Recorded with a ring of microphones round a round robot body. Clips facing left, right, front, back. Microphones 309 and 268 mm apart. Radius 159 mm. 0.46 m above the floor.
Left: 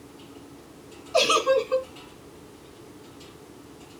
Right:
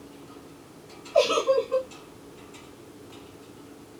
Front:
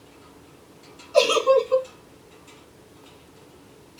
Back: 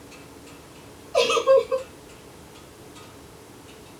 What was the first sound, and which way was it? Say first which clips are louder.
A giggle: even, even; 65° left.